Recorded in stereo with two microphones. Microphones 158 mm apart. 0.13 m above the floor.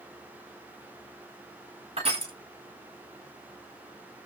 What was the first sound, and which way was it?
Crushing, 45° right (ahead or behind).